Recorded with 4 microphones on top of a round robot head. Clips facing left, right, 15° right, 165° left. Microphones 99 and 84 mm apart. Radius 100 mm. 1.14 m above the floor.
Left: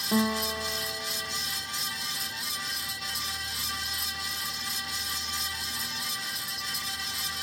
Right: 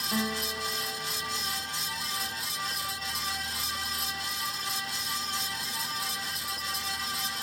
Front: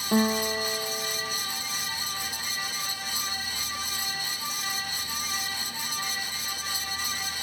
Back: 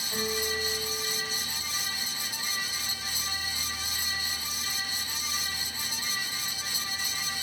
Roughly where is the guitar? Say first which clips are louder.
Left 6 dB, front 8 dB; ahead left.